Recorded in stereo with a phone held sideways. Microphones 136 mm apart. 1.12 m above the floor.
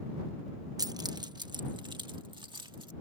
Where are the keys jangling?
30° right (ahead or behind); by 2.9 s 35° right (ahead or behind).